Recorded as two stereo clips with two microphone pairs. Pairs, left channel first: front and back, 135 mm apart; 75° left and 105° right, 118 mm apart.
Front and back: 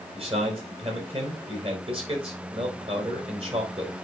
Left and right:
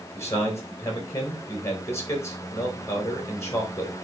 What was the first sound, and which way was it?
A man speaking, 140° left.